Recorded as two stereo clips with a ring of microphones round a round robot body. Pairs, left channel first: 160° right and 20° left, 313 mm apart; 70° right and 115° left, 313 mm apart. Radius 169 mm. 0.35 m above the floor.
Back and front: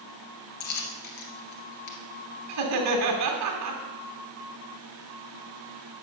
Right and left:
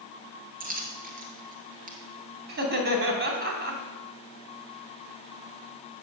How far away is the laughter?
About 2.5 m.